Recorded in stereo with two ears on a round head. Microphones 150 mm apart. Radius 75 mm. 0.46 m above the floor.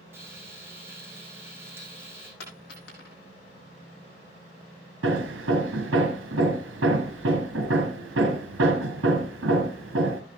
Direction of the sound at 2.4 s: 70° left (ahead or behind).